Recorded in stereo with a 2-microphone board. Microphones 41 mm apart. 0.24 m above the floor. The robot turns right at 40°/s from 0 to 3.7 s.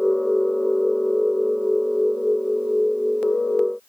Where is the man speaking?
No man speaking in this recording.